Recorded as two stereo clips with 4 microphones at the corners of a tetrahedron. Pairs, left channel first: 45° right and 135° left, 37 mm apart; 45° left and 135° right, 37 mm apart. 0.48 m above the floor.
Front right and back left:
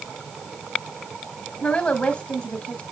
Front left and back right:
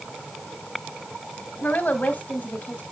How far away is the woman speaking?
About 2.5 m.